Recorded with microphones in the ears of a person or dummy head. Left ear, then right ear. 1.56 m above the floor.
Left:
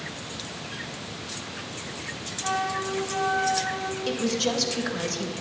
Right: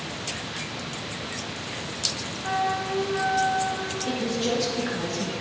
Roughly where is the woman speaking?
Left.